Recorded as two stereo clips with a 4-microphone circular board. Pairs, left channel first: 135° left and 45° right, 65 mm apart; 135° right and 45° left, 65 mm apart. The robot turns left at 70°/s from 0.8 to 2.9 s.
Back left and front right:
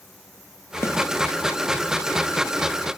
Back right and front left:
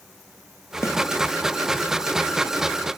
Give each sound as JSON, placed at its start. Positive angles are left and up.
{"t": 0.8, "sound": "a snare drum", "azimuth_deg": 180, "distance_m": 2.5}